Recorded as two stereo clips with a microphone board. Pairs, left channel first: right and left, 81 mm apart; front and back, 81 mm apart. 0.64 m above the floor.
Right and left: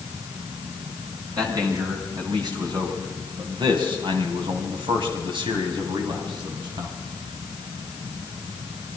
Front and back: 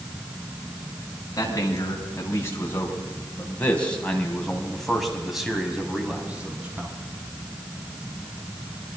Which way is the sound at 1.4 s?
50° left.